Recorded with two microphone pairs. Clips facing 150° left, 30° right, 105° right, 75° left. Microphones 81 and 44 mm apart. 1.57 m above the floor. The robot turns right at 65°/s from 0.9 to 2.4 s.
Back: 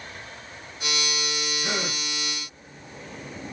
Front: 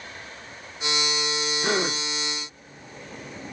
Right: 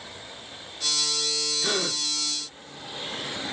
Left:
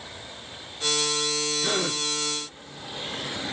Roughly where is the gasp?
Ahead right.